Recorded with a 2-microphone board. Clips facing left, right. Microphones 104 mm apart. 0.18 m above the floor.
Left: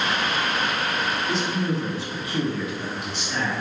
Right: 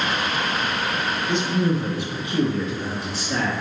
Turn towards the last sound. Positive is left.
turn(degrees=-45)  # may be behind; listen again after turning